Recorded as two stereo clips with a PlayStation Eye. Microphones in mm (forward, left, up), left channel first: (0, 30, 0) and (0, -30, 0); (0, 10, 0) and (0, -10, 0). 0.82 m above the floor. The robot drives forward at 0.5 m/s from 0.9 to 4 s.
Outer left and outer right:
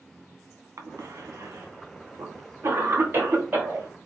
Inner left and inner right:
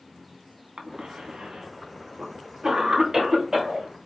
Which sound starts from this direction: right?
A cough, at 0.8 s.